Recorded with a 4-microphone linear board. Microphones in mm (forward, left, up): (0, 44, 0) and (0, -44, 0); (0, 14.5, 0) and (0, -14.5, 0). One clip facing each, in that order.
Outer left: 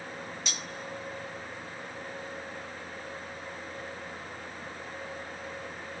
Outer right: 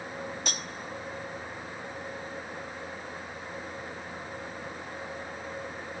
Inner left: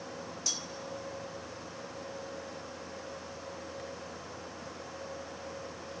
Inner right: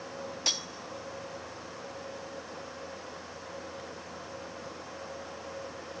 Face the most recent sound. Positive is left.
turn(degrees=-50)  # may be behind; listen again after turning